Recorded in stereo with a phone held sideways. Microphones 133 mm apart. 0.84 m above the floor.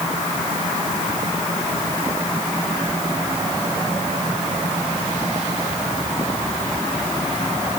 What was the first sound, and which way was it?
Only background noise.